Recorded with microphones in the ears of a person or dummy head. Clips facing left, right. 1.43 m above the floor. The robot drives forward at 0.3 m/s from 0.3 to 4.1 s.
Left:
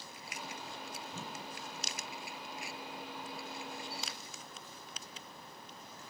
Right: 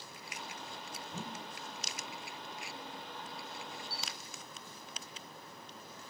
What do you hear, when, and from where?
1.1 s a whoosh: 35° right (ahead or behind), 0.6 m; by 1.5 s 30° right (ahead or behind), 0.7 m
3.9 s a camera shutter: 20° left (ahead or behind), 0.5 m